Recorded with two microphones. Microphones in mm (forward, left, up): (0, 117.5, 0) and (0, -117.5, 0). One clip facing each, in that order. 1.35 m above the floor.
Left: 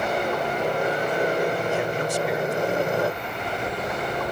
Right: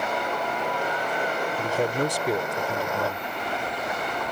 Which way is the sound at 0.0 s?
35° left (ahead or behind).